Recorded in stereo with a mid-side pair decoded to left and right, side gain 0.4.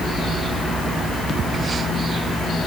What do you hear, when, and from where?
Only background noise.